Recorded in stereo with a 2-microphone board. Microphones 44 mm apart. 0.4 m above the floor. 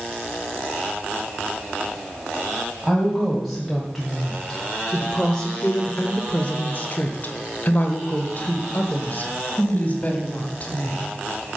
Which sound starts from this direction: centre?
A woman speaking, at 2.8 s.